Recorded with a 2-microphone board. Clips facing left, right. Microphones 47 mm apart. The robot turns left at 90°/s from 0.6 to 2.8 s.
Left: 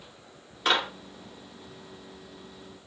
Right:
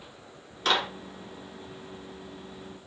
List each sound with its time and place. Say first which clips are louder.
0.7 s a clap: left 1 dB; 10° left (ahead or behind), 1.4 m; by 0.9 s 5° left (ahead or behind), 1.4 m